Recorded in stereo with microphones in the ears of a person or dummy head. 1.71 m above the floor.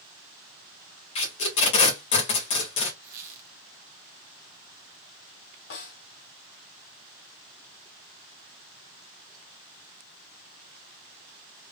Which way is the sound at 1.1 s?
30° left (ahead or behind).